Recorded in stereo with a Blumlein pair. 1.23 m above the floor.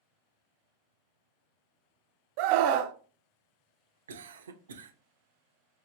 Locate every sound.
2.4 s a scream: 45° right, 0.5 m
4.1 s a cough: 70° right, 0.7 m